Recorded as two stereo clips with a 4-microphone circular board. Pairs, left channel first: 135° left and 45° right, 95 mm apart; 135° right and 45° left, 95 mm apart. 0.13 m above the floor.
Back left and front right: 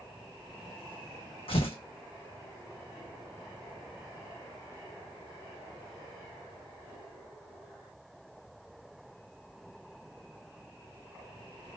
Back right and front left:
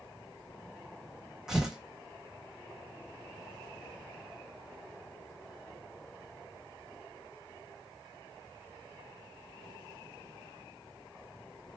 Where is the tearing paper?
130° left, 1.1 m.